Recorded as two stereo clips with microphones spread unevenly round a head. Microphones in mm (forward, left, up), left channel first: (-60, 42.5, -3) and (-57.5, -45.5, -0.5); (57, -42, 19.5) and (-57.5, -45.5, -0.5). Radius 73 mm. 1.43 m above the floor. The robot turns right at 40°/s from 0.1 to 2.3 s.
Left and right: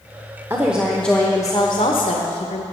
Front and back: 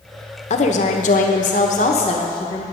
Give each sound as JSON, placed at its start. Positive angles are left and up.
{"t": 0.5, "sound": "a woman speaking", "azimuth_deg": -15, "distance_m": 0.9}